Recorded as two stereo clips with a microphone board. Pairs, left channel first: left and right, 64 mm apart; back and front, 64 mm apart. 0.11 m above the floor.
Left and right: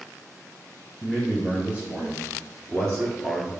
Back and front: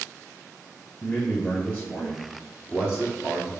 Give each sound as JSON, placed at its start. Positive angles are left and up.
{"t": 1.0, "sound": "a man speaking", "azimuth_deg": -165, "distance_m": 1.5}